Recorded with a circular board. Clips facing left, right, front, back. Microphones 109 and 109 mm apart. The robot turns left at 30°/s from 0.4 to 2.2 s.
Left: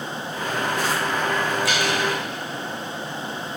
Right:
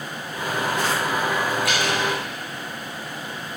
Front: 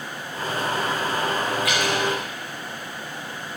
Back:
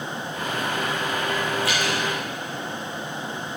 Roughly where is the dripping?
Behind right.